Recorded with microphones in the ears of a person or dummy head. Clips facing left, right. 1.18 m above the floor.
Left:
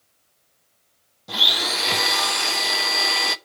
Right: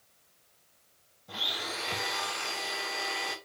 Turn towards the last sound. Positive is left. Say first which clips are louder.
# left 10 dB
turn(degrees=70)  # may be behind; listen again after turning